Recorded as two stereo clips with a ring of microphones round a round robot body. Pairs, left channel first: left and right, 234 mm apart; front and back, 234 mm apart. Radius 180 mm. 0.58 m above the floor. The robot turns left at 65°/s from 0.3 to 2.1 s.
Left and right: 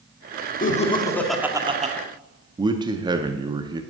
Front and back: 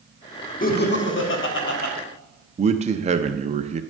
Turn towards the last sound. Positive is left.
turn(degrees=-145)